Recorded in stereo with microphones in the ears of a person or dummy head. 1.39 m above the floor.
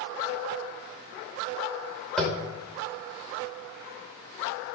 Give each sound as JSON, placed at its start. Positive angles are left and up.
{"t": 2.2, "sound": "tapping", "side_deg": 0, "distance_m": 1.4}